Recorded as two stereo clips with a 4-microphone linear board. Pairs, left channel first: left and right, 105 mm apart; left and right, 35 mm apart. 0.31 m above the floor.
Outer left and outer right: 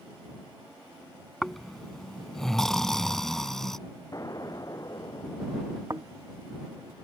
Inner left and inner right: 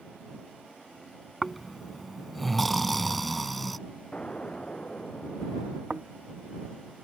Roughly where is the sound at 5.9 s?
Right.